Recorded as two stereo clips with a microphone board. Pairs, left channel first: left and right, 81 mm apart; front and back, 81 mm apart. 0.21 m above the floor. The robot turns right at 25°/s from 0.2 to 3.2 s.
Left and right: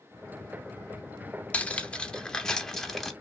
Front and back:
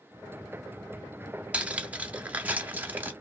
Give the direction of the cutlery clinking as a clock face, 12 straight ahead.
8 o'clock.